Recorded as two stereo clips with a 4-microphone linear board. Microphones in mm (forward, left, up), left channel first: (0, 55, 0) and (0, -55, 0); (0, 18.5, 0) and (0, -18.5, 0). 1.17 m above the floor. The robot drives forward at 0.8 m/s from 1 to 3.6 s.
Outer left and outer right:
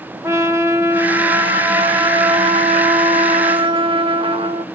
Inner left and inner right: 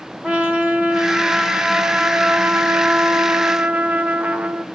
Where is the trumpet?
25° right (ahead or behind), 1.7 m; by 4.7 s 55° right (ahead or behind), 0.9 m.